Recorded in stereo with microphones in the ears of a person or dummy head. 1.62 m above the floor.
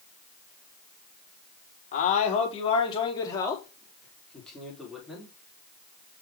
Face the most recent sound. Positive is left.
turn(degrees=0)  # may be behind; listen again after turning